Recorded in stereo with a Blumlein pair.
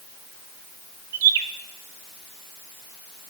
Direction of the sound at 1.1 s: 55° right.